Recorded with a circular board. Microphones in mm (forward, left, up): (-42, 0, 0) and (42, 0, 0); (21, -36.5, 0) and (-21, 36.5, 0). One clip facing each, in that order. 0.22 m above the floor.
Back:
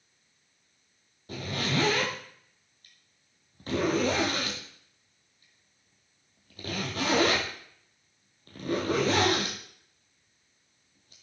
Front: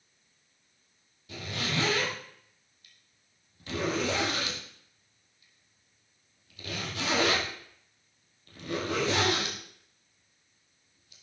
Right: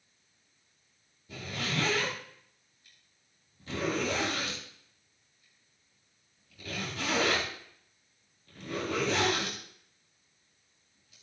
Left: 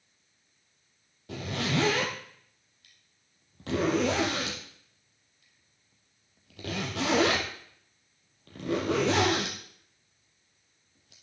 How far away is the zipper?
About 3.5 m.